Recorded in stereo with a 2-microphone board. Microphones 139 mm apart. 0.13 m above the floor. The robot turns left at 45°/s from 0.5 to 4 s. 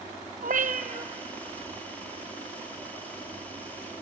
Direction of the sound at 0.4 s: 75° right (ahead or behind).